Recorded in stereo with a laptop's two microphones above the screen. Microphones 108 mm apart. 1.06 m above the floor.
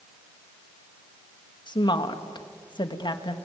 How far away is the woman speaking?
About 1.6 m.